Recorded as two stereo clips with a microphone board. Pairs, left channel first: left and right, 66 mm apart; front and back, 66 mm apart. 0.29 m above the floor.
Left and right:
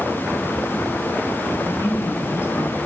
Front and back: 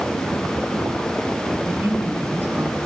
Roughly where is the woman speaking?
Behind left.